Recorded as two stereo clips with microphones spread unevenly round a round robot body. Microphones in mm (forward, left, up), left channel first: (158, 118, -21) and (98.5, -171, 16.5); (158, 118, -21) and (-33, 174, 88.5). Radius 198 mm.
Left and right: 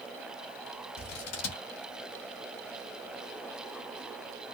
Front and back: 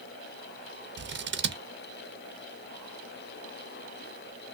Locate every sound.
1.0 s scissors: 110° left, 0.9 m